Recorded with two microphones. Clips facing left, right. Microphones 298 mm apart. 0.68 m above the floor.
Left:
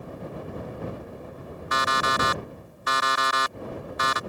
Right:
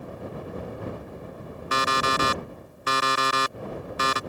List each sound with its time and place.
1.7 s an alarm clock: 35° right (ahead or behind)